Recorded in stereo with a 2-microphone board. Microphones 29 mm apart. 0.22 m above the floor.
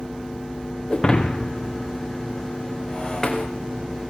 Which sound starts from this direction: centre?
Breaking glass, at 0.9 s.